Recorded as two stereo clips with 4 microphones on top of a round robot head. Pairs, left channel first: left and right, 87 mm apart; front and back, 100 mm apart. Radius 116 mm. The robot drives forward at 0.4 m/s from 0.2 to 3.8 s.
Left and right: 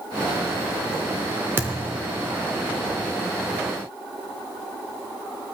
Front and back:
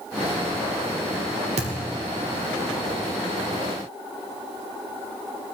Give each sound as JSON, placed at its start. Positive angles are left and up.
{"t": 1.6, "sound": "a thud", "azimuth_deg": -155, "distance_m": 0.9}